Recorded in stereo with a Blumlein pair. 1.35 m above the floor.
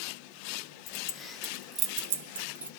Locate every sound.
0.9 s keys jangling: 40° left, 0.9 m; by 2.7 s 80° right, 1.0 m